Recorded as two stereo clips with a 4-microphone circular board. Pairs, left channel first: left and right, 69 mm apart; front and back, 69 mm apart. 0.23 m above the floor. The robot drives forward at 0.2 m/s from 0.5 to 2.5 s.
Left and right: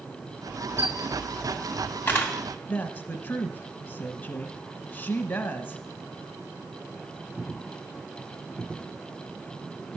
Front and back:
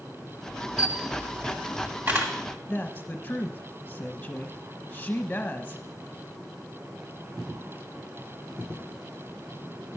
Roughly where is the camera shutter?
Behind left.